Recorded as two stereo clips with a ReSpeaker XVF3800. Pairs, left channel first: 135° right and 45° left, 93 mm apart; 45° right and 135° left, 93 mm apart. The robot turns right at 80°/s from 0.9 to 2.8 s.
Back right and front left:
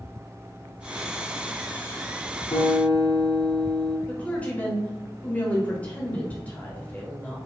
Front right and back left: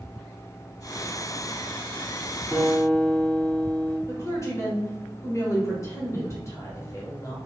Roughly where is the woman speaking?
Right.